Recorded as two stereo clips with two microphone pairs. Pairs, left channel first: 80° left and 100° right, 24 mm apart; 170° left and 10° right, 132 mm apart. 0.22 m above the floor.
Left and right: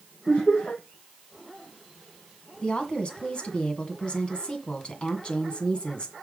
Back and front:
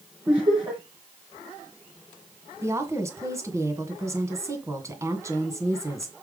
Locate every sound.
0.3 s laughter: 55° left, 5 m
2.6 s a woman speaking: 55° left, 1.9 m